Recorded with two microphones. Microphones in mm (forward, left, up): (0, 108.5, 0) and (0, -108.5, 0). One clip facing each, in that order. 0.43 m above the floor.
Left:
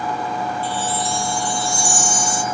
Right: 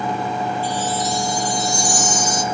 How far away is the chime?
About 0.6 m.